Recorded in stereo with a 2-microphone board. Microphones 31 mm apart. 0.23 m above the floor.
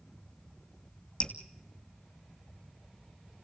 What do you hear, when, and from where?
1.2 s dripping: 45° left (ahead or behind), 2.5 m